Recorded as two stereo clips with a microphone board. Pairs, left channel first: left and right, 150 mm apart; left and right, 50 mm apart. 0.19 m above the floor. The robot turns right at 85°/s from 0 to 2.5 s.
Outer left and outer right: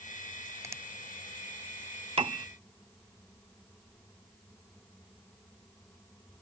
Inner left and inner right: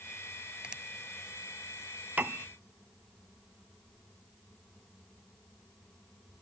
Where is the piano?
40° right (ahead or behind); by 2.5 s 35° right (ahead or behind).